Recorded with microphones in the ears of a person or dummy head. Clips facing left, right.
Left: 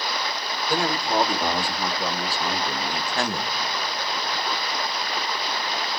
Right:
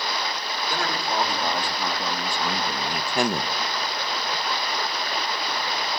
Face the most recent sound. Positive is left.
turn(degrees=-25)  # may be behind; listen again after turning